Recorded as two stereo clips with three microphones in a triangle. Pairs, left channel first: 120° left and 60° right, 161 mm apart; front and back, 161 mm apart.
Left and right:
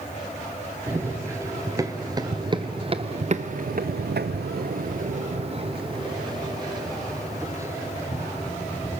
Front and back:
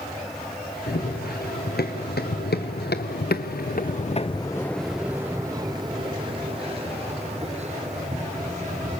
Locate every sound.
0.9 s running footsteps: 15° left, 2.5 m; by 9.0 s 135° right, 3.5 m